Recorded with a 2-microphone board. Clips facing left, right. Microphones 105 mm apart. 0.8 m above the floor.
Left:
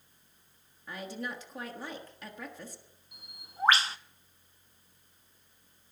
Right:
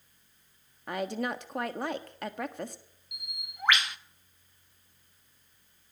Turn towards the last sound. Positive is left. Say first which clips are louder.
# left 1 dB
turn(degrees=35)  # may be behind; listen again after turning